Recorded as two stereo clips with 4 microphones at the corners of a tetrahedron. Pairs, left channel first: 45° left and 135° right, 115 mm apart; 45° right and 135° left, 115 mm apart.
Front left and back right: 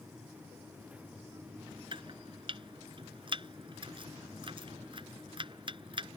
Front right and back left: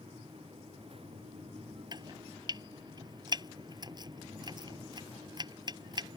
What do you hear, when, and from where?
1.9 s chopping: 175° right